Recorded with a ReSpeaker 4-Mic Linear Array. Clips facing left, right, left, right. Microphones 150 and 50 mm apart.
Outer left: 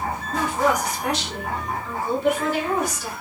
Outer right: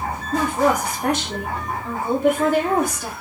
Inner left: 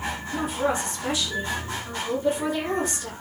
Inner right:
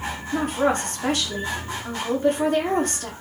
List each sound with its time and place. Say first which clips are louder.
0.3 s a woman speaking: outer right 3 dB, inner right 4 dB; 55° right (ahead or behind), 4.5 m